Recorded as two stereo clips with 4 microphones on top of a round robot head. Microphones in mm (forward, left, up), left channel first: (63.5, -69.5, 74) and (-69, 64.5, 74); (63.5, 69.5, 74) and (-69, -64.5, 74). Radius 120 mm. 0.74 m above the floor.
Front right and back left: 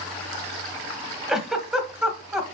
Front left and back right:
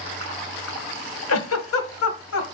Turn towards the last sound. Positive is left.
turn(degrees=45)